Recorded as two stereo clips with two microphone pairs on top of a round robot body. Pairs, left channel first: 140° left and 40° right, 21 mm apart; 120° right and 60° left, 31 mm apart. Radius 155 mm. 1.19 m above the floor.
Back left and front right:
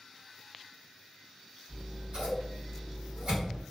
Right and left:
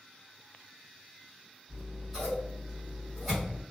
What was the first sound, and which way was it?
Scissors, 20° right.